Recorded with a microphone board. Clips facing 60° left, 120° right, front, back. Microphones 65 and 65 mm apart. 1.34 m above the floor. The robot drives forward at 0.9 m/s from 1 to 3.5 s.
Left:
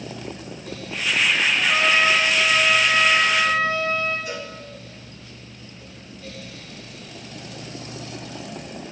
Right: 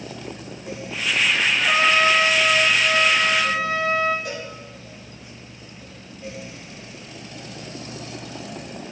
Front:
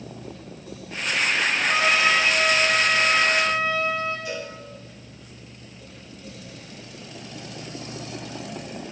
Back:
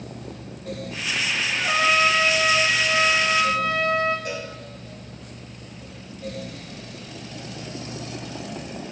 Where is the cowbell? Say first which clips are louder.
Even, back 1 dB; 145° right, 8 m.